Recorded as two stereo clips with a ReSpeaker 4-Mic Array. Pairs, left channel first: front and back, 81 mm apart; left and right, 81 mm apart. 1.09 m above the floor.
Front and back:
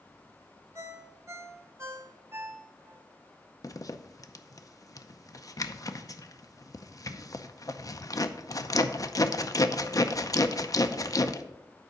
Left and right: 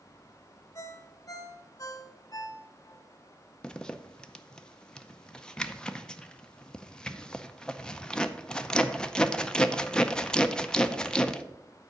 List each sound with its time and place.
0.8 s a ringtone: 130° left, 0.8 m
3.6 s a zipper: 15° left, 0.6 m